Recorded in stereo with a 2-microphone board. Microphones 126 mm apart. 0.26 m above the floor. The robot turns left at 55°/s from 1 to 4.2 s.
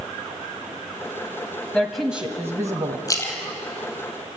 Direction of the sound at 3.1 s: 30° left (ahead or behind).